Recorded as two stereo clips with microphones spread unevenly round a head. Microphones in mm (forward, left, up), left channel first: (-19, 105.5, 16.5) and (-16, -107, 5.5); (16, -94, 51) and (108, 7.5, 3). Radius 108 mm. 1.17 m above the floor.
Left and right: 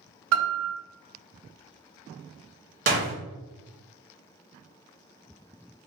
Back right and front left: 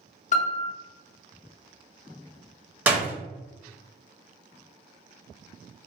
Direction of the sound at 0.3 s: 100° right.